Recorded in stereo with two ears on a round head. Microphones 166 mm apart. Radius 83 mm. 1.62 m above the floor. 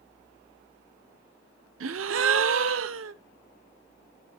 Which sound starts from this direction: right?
A gasp, at 1.8 s.